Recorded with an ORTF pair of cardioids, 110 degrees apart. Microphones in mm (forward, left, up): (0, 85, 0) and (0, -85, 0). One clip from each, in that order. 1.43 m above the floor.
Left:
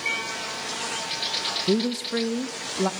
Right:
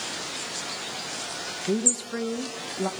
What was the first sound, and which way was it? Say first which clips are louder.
A woman speaking: left 2 dB; 20° left.